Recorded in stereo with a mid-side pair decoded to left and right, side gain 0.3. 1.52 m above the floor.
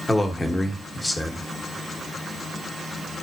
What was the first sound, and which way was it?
A man speaking, 25° left.